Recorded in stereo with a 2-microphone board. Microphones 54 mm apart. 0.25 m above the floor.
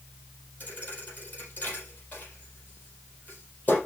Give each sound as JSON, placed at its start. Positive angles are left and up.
{"t": 0.6, "sound": "a thud", "side_deg": 30, "distance_m": 4.0}